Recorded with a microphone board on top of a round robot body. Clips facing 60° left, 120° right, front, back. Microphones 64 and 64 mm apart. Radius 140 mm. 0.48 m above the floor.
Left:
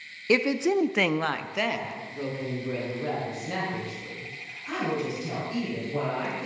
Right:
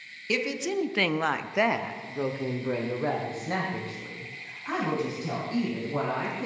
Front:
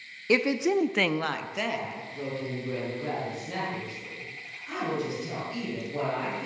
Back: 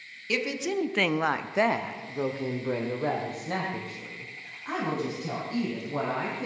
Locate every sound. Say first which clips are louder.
0.3 s a woman speaking: left 6 dB, front 5 dB; 30° left, 1.1 m; by 6.5 s 160° right, 6 m